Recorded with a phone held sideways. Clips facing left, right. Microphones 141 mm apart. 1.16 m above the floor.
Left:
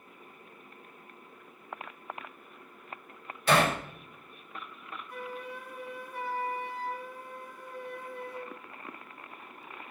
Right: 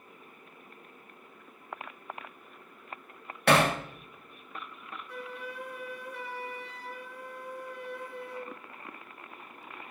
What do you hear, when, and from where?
3.5 s hammering: 70° right (ahead or behind), 1.5 m
5.1 s a flute: 75° right (ahead or behind), 1.2 m